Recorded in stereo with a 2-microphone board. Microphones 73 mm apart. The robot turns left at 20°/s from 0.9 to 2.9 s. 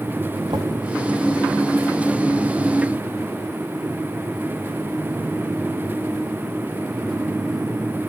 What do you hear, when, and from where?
0.5 s knocking: 80° right, 1.6 m